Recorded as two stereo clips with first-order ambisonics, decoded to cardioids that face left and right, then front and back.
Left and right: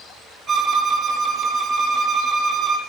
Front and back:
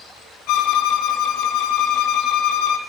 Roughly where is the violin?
Ahead right.